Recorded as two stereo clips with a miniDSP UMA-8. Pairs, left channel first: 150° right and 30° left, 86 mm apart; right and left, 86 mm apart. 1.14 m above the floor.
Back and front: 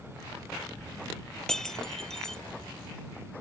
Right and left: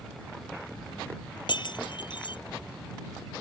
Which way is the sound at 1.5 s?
65° right.